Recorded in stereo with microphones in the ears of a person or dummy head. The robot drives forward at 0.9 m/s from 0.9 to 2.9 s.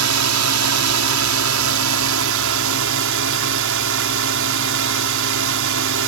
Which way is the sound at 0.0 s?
85° right.